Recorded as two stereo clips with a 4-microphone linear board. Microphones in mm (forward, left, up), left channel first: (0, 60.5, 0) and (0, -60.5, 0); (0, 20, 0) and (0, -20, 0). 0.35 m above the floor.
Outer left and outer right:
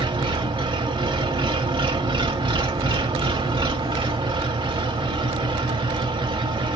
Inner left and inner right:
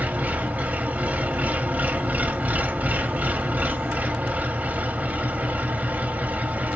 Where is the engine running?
45° right (ahead or behind), 0.8 m.